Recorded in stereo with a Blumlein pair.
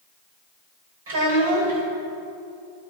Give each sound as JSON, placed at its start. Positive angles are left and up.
{"t": 1.1, "sound": "a child speaking", "azimuth_deg": -65, "distance_m": 3.0}